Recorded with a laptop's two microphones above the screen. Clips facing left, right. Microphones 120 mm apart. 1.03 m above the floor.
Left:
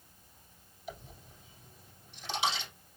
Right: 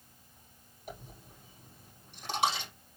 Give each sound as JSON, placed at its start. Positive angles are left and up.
{"t": 0.9, "sound": "a dropped coin", "side_deg": -55, "distance_m": 4.0}